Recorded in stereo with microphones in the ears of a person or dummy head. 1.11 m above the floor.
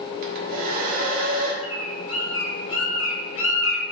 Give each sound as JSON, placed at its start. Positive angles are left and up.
{"t": 0.2, "sound": "a hair dryer", "side_deg": -55, "distance_m": 1.0}
{"t": 1.6, "sound": "a bird", "side_deg": 80, "distance_m": 1.2}